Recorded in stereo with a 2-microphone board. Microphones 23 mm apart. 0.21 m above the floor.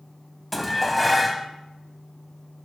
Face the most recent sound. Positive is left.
turn(degrees=0)  # may be behind; listen again after turning